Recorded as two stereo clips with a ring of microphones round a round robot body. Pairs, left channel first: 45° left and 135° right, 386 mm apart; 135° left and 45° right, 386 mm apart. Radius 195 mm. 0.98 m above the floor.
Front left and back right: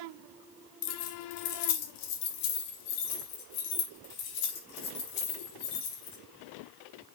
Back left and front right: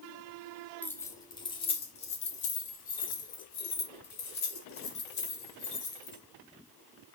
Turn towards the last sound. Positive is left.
turn(degrees=70)